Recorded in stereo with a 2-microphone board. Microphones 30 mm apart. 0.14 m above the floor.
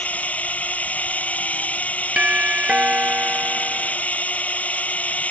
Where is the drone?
55° left (ahead or behind).